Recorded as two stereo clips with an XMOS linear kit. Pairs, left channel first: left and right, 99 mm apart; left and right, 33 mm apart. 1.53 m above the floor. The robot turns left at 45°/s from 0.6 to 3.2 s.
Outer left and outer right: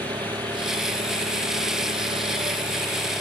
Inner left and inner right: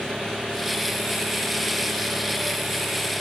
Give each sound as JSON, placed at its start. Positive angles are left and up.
{"t": 0.0, "sound": "an engine running", "azimuth_deg": -40}